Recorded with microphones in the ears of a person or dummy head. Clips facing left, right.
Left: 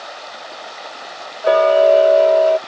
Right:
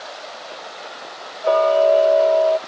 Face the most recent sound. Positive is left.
turn(degrees=25)  # may be behind; listen again after turning